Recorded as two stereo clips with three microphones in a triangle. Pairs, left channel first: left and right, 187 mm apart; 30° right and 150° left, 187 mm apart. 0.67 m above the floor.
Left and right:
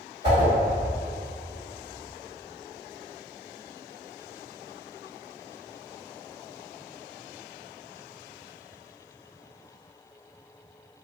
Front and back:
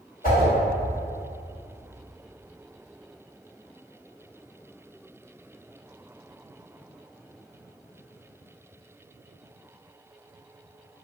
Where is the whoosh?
70° right, 1.5 m.